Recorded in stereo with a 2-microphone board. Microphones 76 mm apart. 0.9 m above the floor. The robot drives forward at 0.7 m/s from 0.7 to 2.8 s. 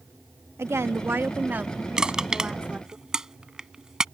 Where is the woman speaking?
40° right (ahead or behind); by 3.0 s 15° right (ahead or behind).